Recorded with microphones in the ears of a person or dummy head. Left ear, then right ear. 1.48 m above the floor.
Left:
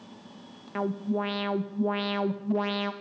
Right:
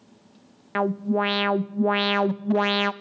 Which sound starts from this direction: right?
An alarm, at 0.8 s.